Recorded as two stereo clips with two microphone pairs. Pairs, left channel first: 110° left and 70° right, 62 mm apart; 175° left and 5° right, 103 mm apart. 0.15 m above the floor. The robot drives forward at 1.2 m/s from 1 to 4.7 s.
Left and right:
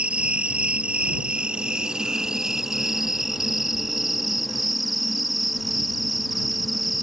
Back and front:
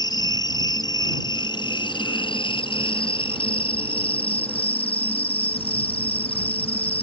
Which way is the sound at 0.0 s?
140° right.